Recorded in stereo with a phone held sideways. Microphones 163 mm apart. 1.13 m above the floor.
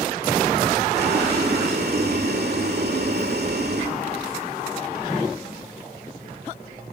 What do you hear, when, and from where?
0.9 s boiling: 80° right, 2.0 m